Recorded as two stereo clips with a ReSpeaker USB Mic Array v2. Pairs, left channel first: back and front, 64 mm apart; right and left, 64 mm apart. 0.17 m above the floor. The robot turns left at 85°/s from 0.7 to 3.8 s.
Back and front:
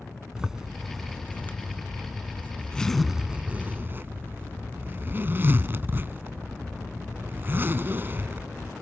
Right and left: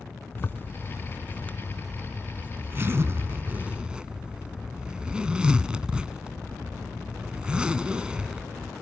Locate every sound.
0.3 s a zipper: 75° right, 0.7 m; by 8.7 s 25° left, 0.7 m